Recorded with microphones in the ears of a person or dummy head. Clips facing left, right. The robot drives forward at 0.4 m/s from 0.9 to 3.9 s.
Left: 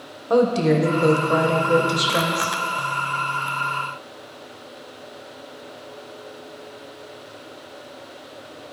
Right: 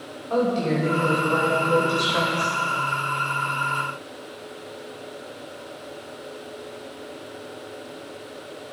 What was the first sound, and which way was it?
A woman speaking, 60° left (ahead or behind).